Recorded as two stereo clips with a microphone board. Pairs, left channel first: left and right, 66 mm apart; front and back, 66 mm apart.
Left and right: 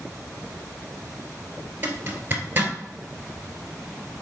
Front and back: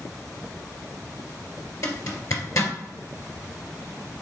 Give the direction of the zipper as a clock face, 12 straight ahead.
1 o'clock.